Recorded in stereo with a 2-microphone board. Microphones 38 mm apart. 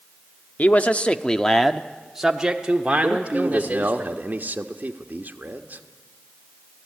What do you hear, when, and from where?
0.6 s a man speaking: 45° left (ahead or behind), 0.9 m; by 4.0 s 40° right (ahead or behind), 1.7 m
3.0 s a man speaking: 55° right (ahead or behind), 1.2 m